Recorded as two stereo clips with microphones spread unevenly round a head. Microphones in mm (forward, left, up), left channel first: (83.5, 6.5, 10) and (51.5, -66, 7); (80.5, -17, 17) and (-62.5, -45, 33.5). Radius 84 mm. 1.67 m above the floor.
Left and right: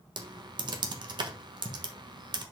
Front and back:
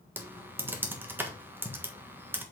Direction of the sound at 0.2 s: 95° right.